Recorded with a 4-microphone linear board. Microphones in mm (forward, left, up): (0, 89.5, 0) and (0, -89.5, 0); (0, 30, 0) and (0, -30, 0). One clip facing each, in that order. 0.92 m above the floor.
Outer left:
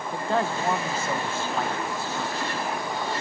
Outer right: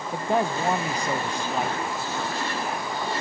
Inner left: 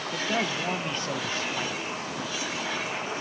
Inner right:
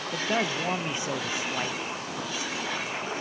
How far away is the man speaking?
About 0.7 m.